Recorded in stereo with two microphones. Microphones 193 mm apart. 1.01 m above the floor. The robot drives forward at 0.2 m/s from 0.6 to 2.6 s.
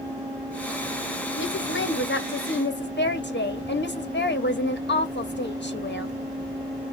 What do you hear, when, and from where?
1.4 s a woman speaking: 80° left, 0.8 m; by 6.2 s 65° left (ahead or behind), 0.9 m